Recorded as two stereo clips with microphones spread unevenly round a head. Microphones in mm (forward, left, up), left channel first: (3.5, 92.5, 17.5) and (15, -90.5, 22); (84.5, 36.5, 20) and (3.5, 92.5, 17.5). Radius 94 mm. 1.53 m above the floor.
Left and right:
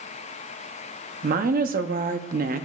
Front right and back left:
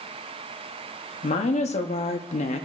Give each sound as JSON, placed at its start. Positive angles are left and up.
{"t": 1.2, "sound": "a woman speaking", "azimuth_deg": -40, "distance_m": 0.7}